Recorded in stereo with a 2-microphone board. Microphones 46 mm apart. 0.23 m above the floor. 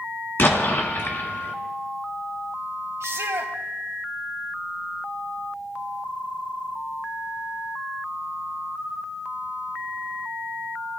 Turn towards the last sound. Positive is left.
turn(degrees=-70)  # may be behind; listen again after turning